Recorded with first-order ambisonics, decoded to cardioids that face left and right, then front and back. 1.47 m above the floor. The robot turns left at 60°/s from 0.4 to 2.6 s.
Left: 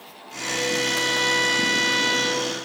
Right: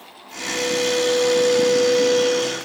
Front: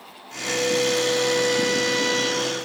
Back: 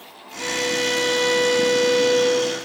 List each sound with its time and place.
0.4 s a violin: 170° right, 2.5 m; by 2.5 s 65° left, 2.5 m